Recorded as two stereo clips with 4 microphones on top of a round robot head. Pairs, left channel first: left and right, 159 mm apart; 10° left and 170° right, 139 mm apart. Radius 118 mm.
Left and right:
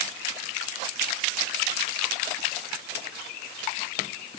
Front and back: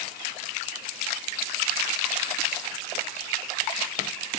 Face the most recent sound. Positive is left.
No sound to turn to.